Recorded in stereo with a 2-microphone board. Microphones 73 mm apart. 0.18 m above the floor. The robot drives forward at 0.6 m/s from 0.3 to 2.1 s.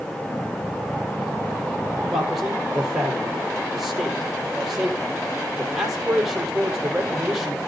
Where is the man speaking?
5° right (ahead or behind), 4.5 m.